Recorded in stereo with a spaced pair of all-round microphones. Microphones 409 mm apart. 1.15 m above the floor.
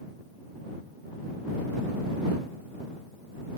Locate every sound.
Only background noise.